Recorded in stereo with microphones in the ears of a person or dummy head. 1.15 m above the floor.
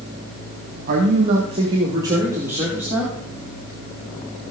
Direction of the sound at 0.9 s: 40° right (ahead or behind).